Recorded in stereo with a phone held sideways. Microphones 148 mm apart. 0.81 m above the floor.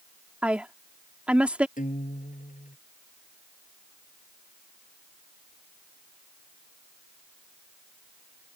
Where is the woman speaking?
10° right (ahead or behind).